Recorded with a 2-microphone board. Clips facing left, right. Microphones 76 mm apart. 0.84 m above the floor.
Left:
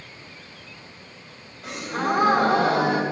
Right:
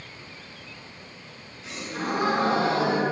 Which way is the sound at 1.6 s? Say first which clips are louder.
Left 5 dB; 70° left (ahead or behind).